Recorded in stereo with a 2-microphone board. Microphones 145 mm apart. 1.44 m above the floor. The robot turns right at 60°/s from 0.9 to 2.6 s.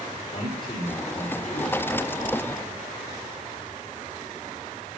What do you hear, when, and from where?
0.3 s a man speaking: 75° left, 3.5 m; by 1.8 s 130° left, 3.5 m